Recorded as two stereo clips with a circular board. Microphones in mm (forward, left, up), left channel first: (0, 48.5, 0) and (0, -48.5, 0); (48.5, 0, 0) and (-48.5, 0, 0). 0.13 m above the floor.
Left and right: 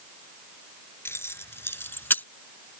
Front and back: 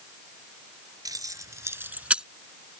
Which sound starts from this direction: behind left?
Keys jangling, at 1.1 s.